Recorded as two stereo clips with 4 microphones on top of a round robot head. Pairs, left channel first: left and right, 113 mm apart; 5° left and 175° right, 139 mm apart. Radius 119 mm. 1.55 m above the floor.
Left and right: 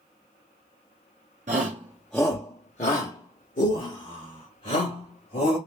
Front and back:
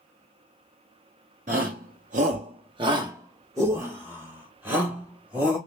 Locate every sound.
1.5 s a shout: 130° right, 0.8 m; by 5.6 s 105° left, 3 m